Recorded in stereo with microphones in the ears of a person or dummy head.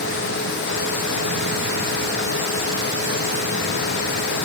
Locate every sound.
Only background noise.